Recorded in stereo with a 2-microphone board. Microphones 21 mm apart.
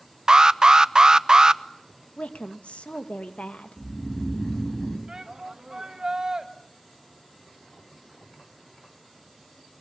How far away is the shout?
About 2.5 m.